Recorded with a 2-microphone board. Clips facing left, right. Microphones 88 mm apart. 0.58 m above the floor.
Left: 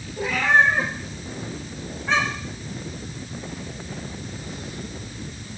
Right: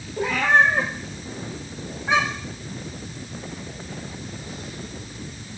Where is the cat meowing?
45° right (ahead or behind), 2 m; by 2.6 s 5° right (ahead or behind), 1.9 m.